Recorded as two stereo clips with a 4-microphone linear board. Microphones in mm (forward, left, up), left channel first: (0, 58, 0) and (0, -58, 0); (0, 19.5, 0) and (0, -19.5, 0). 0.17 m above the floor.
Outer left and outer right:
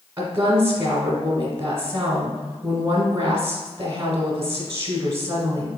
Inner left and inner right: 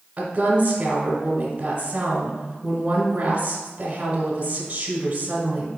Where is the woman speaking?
25° right (ahead or behind), 1.1 m.